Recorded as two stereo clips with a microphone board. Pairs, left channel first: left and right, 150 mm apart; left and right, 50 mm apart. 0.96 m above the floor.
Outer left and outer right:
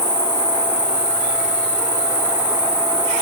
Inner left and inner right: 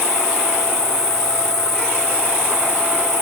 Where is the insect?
5° right (ahead or behind), 5.5 m.